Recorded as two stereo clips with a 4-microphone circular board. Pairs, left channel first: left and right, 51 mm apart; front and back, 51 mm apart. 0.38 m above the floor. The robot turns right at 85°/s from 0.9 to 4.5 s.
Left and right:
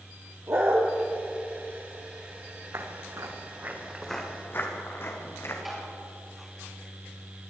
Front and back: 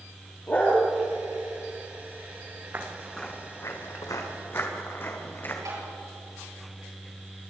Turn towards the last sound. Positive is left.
turn(degrees=180)